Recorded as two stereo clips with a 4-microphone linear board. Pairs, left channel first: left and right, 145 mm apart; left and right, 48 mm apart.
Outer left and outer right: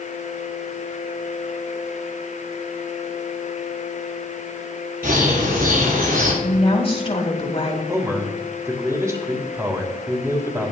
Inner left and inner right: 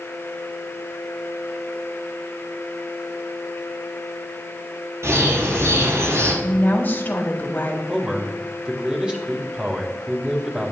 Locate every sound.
5.0 s a bird: 85° right, 5 m
6.4 s a woman speaking: 40° left (ahead or behind), 2.5 m
7.9 s a man speaking: 20° right (ahead or behind), 2.5 m